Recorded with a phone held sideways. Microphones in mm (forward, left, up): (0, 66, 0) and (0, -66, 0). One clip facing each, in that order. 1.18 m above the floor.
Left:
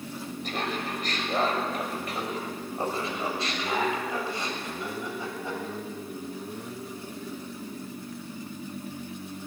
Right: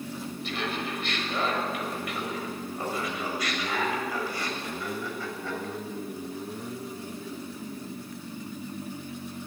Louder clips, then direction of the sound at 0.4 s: Left 1 dB; 45° left (ahead or behind).